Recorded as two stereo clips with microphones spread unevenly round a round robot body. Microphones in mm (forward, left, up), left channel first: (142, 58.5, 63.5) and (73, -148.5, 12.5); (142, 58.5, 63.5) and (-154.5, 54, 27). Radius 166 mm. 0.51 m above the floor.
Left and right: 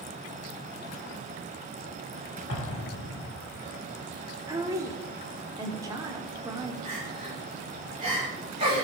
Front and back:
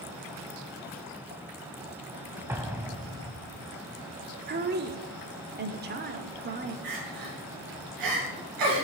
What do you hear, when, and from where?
2.5 s an explosion: 95° left, 0.7 m
4.5 s a woman speaking: 160° right, 0.8 m
6.8 s crying: straight behind, 3 m